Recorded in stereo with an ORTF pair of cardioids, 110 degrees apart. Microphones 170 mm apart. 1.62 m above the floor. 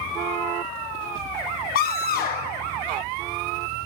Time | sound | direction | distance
1.8 | a scream | 60° left | 1.1 m